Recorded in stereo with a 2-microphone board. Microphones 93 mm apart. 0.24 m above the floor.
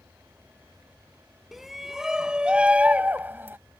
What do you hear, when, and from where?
1.5 s a shout: centre (ahead or behind); by 3.6 s 25° right (ahead or behind)